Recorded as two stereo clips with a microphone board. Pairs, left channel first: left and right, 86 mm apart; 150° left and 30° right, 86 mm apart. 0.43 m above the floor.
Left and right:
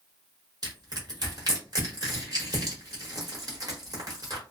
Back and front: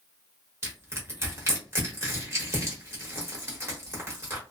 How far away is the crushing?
About 1.2 m.